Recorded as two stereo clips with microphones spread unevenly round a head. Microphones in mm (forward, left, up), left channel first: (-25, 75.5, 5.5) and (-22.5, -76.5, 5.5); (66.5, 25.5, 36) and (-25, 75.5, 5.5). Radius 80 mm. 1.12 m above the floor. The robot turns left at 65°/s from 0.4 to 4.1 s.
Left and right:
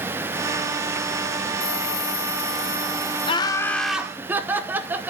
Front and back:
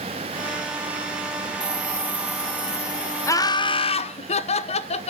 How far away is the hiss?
About 2 m.